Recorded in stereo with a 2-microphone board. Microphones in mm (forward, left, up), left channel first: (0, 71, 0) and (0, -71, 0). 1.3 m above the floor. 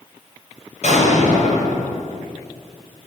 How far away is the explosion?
About 7.5 m.